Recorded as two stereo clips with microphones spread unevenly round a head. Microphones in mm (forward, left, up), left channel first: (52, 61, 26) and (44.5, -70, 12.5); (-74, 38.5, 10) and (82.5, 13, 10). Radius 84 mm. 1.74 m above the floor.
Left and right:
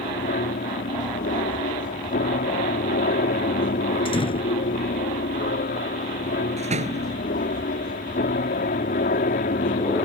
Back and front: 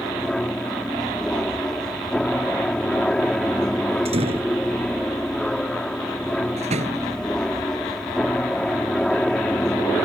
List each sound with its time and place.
0.0 s an aircraft: 85° left
4.0 s a door slam: 40° left
6.6 s a door slam: 60° right